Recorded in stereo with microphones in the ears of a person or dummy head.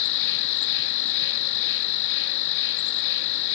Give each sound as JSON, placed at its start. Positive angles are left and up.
{"t": 0.0, "sound": "an insect", "side_deg": 65}